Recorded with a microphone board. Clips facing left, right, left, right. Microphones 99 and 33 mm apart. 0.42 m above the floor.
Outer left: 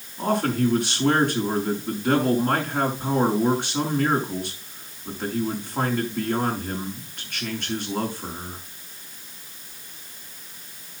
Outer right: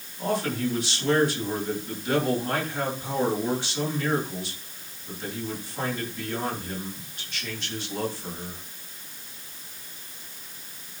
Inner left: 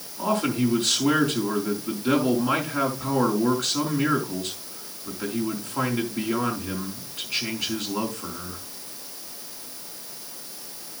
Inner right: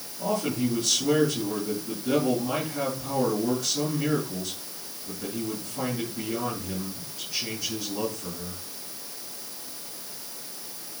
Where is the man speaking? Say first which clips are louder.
Outer left 4 dB, inner left 3 dB; 60° left (ahead or behind), 5 m.